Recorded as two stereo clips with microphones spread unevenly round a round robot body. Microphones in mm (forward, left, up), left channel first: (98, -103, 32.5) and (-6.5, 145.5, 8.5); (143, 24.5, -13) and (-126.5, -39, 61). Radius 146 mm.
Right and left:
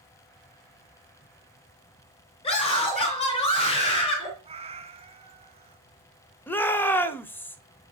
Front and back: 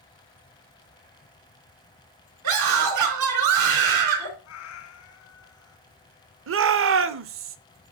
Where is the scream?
140° right, 4.5 m.